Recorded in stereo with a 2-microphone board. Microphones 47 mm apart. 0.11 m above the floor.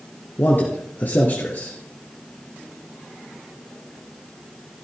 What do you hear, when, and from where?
0.4 s a man speaking: 40° left (ahead or behind), 2 m